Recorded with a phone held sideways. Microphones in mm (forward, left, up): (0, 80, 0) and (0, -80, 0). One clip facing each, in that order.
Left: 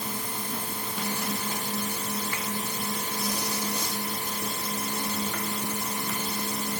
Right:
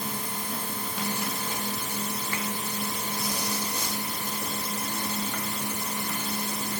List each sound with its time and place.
Only background noise.